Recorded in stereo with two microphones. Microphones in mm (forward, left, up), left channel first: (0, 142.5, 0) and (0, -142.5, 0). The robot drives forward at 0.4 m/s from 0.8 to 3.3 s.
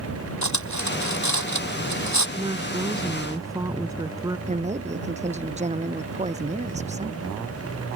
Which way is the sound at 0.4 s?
80° left.